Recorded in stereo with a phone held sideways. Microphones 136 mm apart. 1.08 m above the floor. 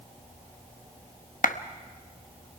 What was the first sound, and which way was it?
A clap, 80° left.